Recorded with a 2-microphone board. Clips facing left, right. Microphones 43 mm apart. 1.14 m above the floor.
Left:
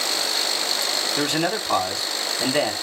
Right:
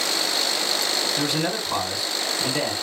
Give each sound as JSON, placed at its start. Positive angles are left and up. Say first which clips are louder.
{"t": 1.2, "sound": "a man speaking", "louder": "left 2 dB", "side_deg": 65, "distance_m": 1.8}